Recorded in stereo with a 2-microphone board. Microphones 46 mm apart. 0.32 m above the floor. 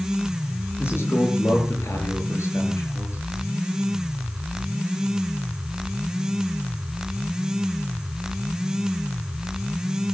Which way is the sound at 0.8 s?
60° left (ahead or behind).